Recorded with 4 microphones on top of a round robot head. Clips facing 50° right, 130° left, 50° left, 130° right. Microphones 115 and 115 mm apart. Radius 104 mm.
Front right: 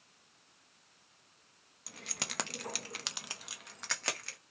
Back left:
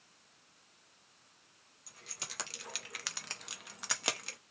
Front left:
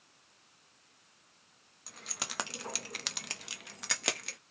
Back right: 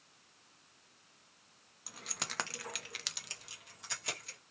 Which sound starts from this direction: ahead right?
Keys jangling, at 1.9 s.